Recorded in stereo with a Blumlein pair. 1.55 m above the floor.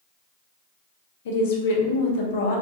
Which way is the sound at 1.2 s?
55° left.